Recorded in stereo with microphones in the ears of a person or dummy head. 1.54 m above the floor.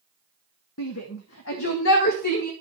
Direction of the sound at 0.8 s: 80° left.